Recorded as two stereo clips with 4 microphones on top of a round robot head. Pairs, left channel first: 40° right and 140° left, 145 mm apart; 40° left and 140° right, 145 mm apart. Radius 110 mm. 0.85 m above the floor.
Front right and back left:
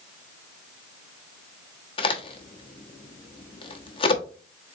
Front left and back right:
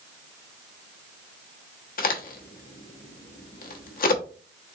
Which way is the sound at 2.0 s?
15° left.